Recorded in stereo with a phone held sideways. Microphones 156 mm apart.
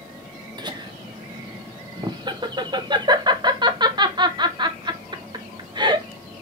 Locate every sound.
0.6 s laughter: 30° right (ahead or behind), 0.6 m